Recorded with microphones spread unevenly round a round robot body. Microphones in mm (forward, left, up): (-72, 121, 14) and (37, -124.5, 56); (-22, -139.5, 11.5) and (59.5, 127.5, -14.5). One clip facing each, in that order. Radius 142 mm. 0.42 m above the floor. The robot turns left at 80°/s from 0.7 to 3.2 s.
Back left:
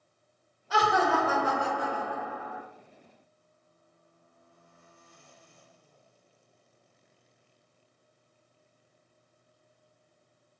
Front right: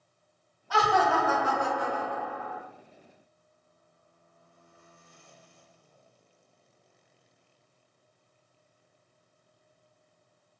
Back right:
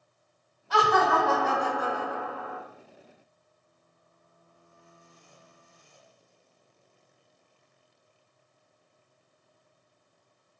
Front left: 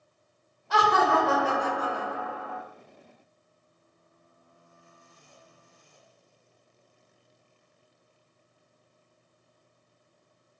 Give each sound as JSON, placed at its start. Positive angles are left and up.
{"t": 0.7, "sound": "laughter", "azimuth_deg": 60, "distance_m": 1.3}